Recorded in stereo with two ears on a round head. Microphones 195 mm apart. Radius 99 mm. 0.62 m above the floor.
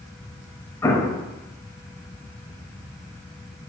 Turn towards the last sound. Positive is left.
turn(degrees=15)  # may be behind; listen again after turning